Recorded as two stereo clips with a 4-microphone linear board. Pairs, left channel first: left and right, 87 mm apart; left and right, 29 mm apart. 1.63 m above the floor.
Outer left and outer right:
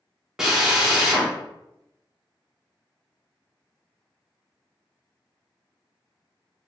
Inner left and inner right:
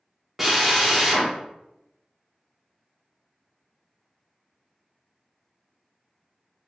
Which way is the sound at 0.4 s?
10° right (ahead or behind).